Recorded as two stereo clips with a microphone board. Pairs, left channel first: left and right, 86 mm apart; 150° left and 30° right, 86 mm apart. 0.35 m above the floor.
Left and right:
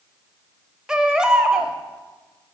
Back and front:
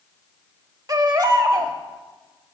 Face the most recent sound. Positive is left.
turn(degrees=-15)